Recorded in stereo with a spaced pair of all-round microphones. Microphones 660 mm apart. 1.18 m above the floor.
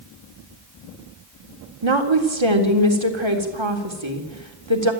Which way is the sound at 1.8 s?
45° right (ahead or behind).